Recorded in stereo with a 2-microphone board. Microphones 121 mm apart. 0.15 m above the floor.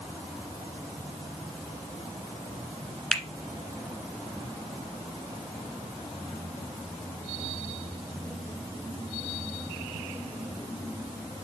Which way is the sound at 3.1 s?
10° left (ahead or behind).